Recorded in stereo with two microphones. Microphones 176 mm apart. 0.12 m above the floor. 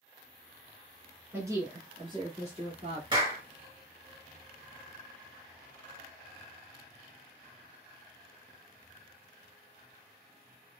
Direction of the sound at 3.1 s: 25° right (ahead or behind).